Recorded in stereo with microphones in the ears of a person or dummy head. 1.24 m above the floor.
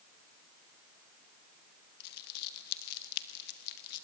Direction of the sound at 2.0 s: 60° left (ahead or behind).